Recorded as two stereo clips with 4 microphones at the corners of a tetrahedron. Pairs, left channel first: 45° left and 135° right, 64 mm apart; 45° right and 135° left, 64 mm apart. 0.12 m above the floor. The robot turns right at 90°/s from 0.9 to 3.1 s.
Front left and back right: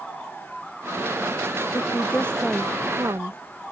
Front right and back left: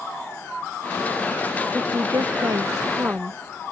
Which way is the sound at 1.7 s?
70° left.